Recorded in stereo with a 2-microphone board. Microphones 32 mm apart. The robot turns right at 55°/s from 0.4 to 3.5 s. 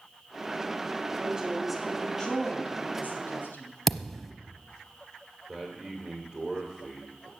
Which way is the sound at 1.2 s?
30° right.